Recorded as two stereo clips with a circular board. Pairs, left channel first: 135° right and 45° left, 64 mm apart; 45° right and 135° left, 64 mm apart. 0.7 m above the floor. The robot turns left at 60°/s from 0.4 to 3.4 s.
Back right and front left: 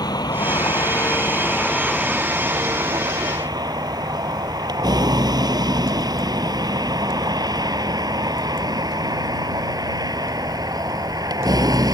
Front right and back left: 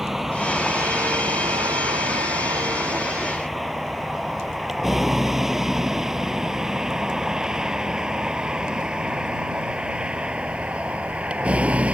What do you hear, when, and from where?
0.0 s a vehicle: 140° right; by 11.9 s 65° left